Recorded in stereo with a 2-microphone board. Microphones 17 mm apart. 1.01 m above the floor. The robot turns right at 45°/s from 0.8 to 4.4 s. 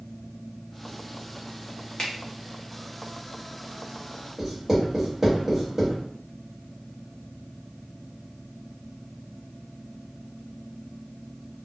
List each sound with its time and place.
2.0 s a finger snap: 55° left (ahead or behind), 0.8 m; by 2.1 s 50° left (ahead or behind), 0.8 m
4.4 s writing: 25° right (ahead or behind), 1.5 m